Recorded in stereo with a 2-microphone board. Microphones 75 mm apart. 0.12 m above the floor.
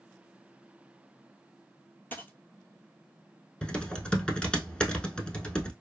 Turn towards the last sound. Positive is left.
turn(degrees=10)  # may be behind; listen again after turning